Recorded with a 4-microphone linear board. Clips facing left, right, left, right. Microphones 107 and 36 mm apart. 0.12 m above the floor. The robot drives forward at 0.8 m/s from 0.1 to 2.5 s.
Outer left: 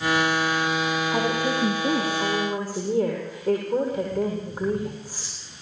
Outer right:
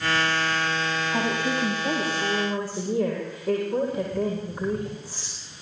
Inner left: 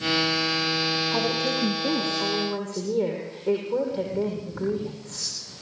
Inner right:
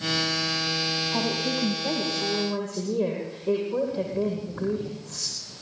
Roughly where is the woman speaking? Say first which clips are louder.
Outer left 1 dB, inner left 2 dB; left.